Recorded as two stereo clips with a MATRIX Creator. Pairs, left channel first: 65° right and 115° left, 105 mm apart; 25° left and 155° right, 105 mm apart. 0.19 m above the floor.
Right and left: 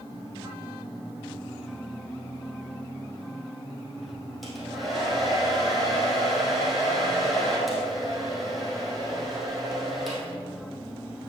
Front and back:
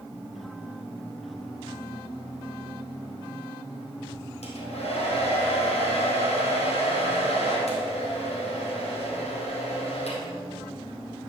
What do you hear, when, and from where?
4.4 s a hair dryer: 25° left, 3 m